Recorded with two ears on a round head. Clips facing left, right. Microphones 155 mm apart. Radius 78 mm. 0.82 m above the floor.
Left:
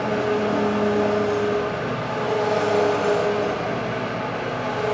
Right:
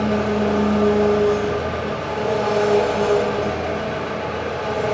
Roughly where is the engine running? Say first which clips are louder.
Right 2 dB; right.